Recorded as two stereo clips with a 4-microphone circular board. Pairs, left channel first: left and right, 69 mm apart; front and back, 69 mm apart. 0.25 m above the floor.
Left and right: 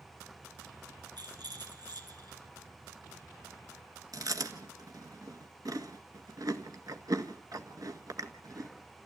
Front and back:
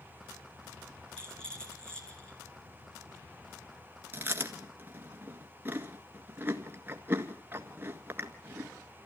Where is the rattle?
80° right, 4 m.